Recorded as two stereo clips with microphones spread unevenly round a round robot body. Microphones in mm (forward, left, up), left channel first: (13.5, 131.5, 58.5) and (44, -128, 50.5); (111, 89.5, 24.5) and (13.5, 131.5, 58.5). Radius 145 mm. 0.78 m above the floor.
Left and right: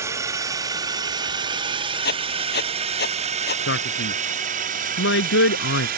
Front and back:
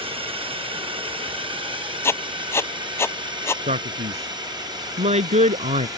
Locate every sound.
0.0 s a drone: 160° right; by 6.0 s 135° right
2.0 s writing: 45° left
3.7 s a man speaking: 145° left